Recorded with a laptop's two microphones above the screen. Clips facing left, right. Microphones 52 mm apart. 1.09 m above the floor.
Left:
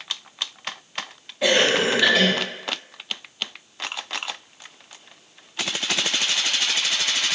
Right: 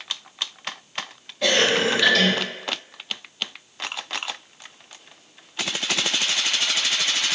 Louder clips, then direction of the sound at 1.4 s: Left 1 dB; 15° left (ahead or behind).